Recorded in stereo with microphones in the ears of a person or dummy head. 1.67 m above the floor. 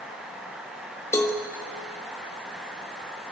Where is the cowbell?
15° left (ahead or behind), 1.3 m.